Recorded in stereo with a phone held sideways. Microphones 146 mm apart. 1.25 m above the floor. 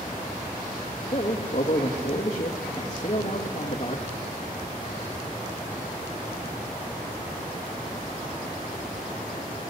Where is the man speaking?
45° left (ahead or behind), 2 m.